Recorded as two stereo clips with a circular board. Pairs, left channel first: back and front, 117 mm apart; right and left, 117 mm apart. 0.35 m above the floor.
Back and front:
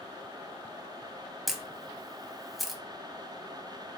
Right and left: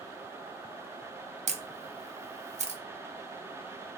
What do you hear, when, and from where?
1.5 s a camera shutter: 90° left, 0.5 m